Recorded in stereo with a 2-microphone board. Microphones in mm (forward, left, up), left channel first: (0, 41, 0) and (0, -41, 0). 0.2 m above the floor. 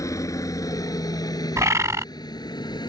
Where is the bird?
40° right (ahead or behind).